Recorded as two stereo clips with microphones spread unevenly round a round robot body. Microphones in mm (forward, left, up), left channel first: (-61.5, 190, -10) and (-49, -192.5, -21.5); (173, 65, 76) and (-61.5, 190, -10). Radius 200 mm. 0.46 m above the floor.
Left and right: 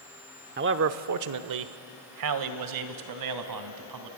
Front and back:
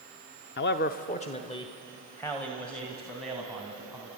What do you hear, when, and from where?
0.6 s a man speaking: 65° right, 0.7 m; by 4.1 s 125° right, 3 m